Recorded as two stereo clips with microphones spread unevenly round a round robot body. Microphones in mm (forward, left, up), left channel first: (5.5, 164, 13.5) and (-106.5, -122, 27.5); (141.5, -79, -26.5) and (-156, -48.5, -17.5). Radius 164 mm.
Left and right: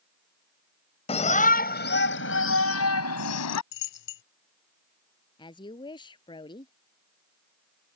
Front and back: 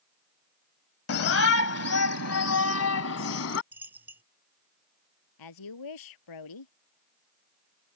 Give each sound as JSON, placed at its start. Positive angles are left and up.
{"t": 1.1, "sound": "a shout", "azimuth_deg": 5}
{"t": 3.7, "sound": "a dropped coin", "azimuth_deg": 90}
{"t": 5.4, "sound": "a woman speaking", "azimuth_deg": -10}